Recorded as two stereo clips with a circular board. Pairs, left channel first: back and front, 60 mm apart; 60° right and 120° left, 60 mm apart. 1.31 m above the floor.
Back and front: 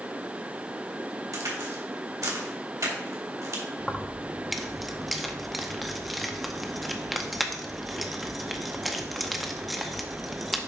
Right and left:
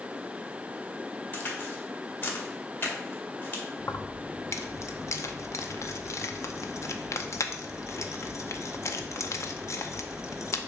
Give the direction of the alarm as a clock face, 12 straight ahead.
I don't hear an alarm.